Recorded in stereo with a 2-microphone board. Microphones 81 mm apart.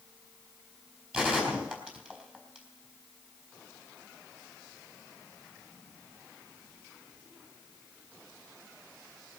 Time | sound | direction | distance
1.1 | a gunshot | 15° right (ahead or behind) | 4.5 m